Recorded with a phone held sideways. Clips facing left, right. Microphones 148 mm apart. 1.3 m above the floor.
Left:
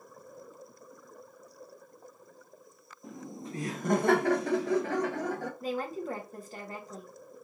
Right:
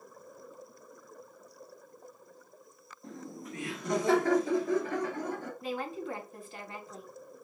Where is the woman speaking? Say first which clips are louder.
Left 1 dB; 40° left (ahead or behind), 1.5 m.